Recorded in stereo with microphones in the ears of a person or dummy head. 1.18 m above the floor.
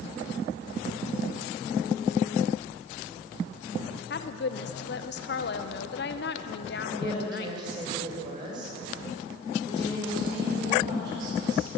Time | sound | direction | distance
4.1 | a woman speaking | 50° left (ahead or behind) | 0.8 m
6.9 | a woman speaking | 30° right (ahead or behind) | 5 m
9.7 | a woman speaking | 25° right (ahead or behind) | 4.5 m